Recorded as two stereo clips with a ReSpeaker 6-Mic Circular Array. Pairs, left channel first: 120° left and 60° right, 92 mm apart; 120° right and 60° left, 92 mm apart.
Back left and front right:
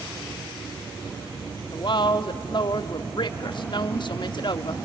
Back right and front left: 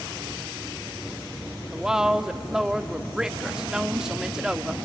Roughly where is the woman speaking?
Behind left.